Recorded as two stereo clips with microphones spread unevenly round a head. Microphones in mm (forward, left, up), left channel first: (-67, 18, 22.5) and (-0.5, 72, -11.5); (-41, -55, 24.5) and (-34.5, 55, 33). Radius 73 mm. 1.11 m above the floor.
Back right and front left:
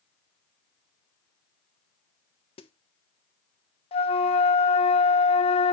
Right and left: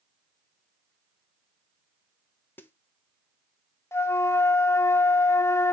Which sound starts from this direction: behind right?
A flute, at 3.9 s.